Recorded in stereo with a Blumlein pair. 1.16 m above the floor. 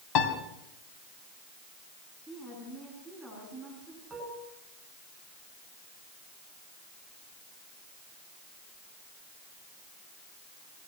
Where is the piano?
35° left, 3.5 m.